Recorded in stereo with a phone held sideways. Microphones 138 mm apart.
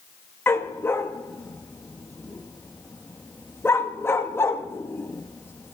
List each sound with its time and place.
0.5 s a dog barking: 20° left (ahead or behind), 0.7 m